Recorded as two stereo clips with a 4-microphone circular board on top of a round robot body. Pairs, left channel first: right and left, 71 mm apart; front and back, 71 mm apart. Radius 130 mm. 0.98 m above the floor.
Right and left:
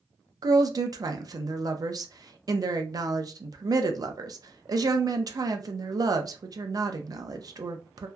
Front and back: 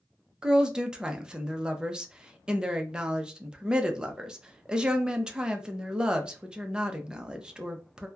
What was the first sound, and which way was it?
A woman speaking, 105° left.